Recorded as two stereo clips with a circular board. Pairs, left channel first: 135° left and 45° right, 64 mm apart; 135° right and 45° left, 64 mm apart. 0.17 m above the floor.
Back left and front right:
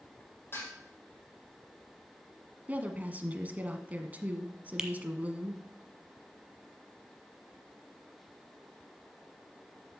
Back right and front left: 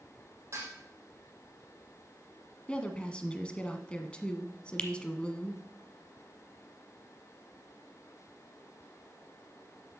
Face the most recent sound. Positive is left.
turn(degrees=-100)